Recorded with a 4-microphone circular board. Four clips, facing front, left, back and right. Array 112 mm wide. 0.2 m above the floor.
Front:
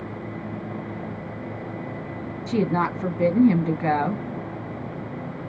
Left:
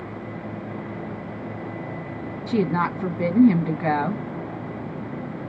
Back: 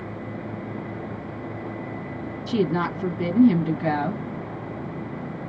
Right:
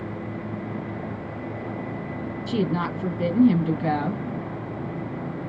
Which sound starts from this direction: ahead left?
A woman speaking, at 2.5 s.